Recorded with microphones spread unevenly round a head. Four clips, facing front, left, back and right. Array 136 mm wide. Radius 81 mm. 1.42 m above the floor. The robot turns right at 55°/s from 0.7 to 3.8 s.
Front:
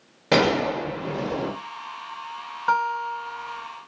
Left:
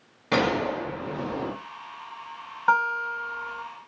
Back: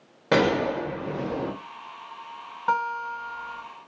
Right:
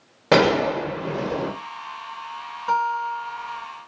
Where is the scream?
I don't hear a scream.